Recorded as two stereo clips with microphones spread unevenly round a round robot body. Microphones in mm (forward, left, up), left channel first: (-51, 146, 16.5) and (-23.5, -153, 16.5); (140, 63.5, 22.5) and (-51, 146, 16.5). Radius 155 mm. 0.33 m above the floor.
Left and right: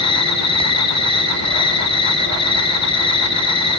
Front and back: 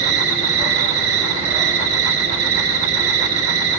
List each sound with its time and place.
0.0 s an insect: 170° left, 0.9 m